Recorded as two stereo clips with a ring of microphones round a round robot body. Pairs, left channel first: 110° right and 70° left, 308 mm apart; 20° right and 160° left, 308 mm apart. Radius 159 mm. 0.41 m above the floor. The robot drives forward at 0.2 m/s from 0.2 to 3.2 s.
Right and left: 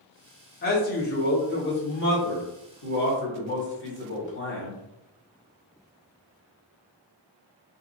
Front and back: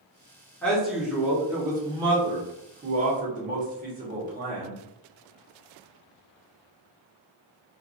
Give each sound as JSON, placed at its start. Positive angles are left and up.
{"t": 0.6, "sound": "a man speaking", "azimuth_deg": -105, "distance_m": 0.8}